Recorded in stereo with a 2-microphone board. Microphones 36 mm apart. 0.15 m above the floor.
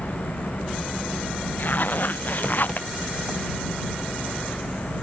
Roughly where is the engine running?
Centre.